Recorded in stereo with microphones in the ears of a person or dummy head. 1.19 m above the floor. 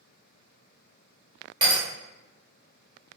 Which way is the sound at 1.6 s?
30° right (ahead or behind).